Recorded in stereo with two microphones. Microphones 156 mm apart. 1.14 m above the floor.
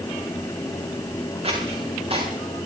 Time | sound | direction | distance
1.4 | footsteps | 40° right (ahead or behind) | 9.5 m